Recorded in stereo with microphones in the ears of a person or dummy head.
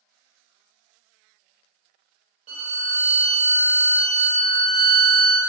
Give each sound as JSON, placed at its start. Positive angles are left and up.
{"t": 2.5, "sound": "a violin", "side_deg": -35, "distance_m": 0.9}